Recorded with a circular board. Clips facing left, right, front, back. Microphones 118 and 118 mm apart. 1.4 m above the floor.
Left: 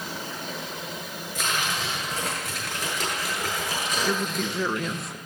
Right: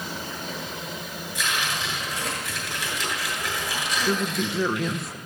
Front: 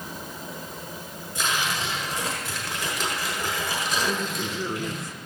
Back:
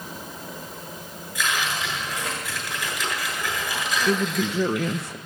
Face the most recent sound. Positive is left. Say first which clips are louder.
# right 4 dB, back 5 dB
turn(degrees=180)